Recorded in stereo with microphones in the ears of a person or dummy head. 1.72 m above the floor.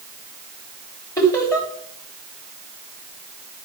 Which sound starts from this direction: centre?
Laughter, at 1.2 s.